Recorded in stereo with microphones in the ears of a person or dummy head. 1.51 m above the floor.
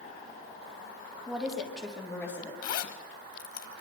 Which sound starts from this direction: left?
A zipper, at 2.6 s.